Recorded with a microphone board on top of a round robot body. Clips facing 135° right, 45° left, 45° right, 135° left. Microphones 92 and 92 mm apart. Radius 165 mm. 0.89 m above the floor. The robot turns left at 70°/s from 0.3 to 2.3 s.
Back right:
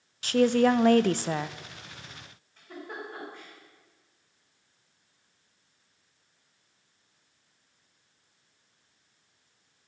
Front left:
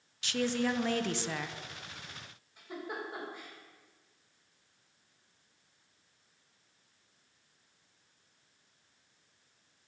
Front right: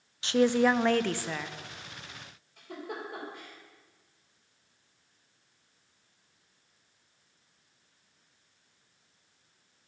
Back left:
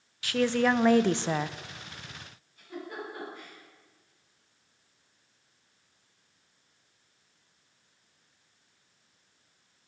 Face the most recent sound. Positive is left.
turn(degrees=-35)